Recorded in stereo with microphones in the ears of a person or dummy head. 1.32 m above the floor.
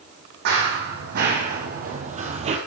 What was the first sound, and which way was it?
Running footsteps, 65° right (ahead or behind).